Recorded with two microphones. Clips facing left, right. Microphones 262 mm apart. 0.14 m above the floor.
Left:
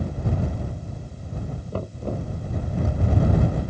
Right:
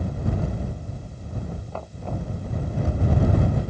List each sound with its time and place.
1.7 s knocking: 40° left (ahead or behind)